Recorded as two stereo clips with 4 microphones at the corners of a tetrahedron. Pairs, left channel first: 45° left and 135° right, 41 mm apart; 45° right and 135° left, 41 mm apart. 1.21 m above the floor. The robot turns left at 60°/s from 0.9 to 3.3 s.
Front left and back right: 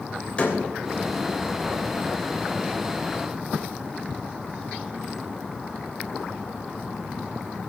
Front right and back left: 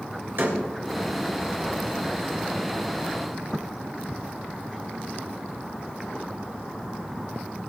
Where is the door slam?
105° left, 3 m.